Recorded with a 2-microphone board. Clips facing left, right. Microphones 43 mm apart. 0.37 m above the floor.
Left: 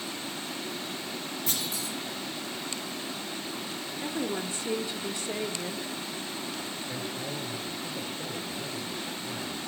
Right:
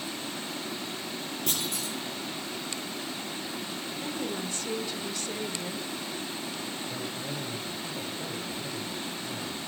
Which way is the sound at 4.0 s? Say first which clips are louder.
Left 3 dB; 20° left (ahead or behind).